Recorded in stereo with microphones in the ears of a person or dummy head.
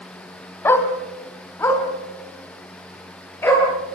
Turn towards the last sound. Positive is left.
turn(degrees=10)  # may be behind; listen again after turning